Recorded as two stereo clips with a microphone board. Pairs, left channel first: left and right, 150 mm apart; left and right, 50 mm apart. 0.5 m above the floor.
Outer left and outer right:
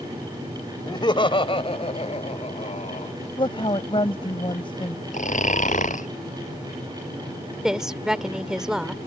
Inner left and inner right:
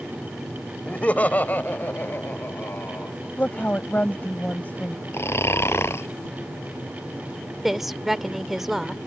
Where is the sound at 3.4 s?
35° left (ahead or behind).